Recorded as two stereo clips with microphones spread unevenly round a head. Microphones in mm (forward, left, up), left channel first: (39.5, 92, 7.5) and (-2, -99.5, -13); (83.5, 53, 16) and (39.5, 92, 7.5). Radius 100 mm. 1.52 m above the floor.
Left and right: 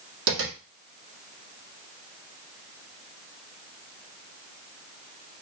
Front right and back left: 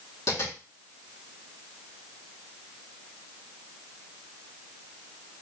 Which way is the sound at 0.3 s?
85° right.